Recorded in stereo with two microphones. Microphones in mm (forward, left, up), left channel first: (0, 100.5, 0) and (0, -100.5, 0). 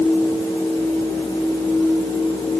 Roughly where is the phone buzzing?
No phone buzzing in this recording.